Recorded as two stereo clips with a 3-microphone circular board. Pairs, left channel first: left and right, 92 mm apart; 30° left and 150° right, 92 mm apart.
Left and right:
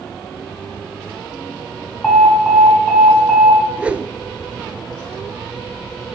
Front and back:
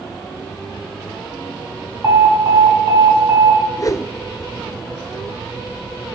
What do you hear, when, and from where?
2.0 s an alarm: 175° left, 1.9 m
3.8 s a whoosh: 20° right, 0.7 m